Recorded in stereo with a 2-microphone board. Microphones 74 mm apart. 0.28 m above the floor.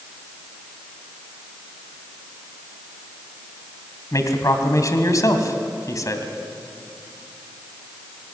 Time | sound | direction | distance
4.1 | a man speaking | 50° left (ahead or behind) | 2.5 m